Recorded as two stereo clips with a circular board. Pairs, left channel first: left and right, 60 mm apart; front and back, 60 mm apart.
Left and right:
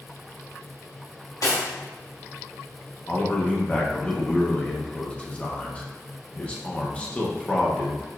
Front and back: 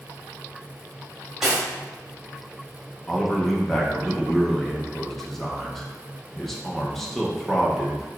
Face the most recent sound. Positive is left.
turn(degrees=80)